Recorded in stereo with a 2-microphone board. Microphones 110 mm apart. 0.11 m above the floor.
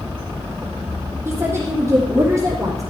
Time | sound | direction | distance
1.2 | a woman speaking | 20° right (ahead or behind) | 3.5 m